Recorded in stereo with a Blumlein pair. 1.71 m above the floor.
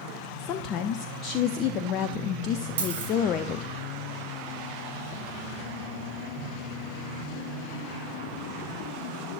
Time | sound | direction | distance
0.4 | a woman speaking | 35° left | 0.5 m
2.8 | a dropped coin | 60° right | 4.5 m